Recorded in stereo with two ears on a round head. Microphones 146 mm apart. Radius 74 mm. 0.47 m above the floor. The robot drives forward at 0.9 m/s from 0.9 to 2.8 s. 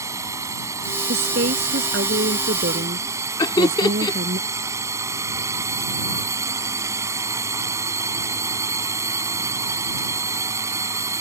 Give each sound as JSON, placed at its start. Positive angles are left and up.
{"t": 0.0, "sound": "a drone", "side_deg": -20}
{"t": 1.1, "sound": "a woman speaking", "side_deg": -75}
{"t": 3.4, "sound": "laughter", "side_deg": 25}